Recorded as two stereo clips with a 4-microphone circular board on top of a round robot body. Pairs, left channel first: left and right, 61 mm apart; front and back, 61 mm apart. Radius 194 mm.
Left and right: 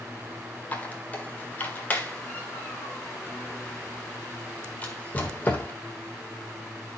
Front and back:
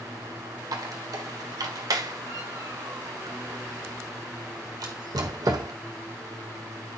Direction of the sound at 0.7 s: 155° left.